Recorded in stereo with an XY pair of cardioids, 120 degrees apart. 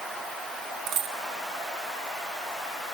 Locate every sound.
0.9 s a dropped coin: 60° right, 1.7 m